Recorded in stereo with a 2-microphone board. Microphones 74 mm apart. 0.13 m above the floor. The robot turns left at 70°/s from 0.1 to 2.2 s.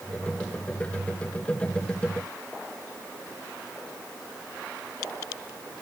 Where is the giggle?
I don't hear a giggle.